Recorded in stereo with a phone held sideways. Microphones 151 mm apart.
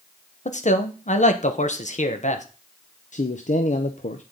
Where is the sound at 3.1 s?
55° left (ahead or behind), 0.8 m.